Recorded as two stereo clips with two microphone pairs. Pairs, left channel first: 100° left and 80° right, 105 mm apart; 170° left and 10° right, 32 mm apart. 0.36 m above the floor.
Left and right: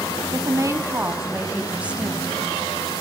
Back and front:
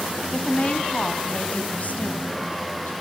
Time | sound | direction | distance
0.3 | a woman speaking | 130° right | 2 m